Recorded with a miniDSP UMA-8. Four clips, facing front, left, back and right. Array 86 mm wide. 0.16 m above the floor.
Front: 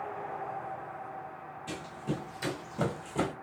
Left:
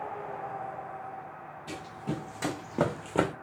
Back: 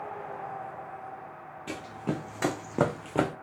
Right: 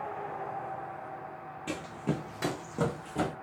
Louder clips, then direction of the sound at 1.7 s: Right 3 dB, back 3 dB; 125° right.